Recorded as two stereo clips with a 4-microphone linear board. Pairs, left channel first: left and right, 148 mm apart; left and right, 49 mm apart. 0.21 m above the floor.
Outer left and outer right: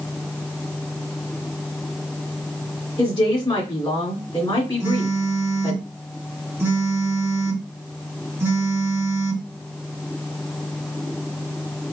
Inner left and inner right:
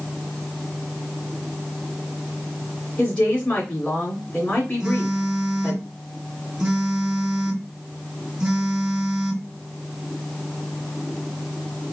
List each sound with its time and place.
3.0 s a woman speaking: 30° left (ahead or behind), 2 m
4.8 s a phone buzzing: 15° right (ahead or behind), 1.1 m